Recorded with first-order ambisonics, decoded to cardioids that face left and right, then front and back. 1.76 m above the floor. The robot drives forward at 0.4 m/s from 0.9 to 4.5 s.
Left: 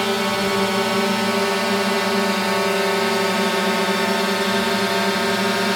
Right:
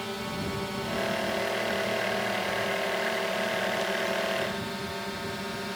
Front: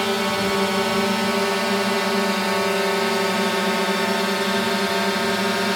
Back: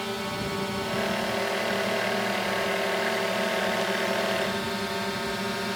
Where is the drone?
50° left; by 5.8 s 55° left.